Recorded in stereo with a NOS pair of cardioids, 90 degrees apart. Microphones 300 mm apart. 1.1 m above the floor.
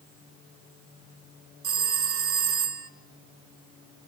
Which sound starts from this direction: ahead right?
A phone ringing, at 1.6 s.